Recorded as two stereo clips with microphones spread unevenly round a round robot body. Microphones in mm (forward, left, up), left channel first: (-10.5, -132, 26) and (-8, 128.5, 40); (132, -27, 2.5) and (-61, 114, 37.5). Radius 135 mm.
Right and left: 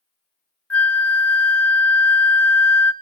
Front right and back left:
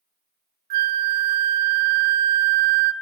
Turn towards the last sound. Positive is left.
turn(degrees=-175)